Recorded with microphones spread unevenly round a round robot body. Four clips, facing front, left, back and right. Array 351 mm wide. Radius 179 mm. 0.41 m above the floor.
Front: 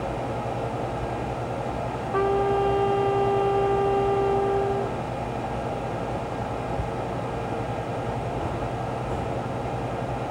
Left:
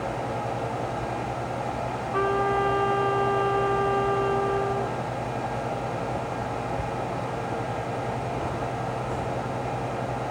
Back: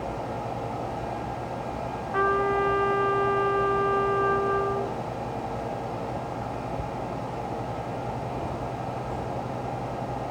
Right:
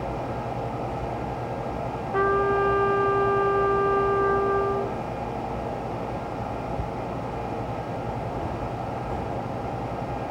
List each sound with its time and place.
2.1 s a trumpet: 15° right, 1.1 m